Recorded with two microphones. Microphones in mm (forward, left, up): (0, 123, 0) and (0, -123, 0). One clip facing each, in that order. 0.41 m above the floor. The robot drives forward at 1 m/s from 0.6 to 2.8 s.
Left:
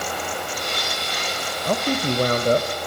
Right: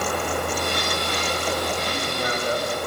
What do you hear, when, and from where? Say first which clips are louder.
1.6 s a man speaking: left 5 dB; 60° left (ahead or behind), 2.0 m; by 2.7 s 50° left (ahead or behind), 2 m